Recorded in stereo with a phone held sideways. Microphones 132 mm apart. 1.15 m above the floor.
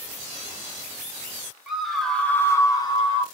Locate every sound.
1.7 s a scream: 5° right (ahead or behind), 1.2 m; by 3.2 s 35° left (ahead or behind), 0.8 m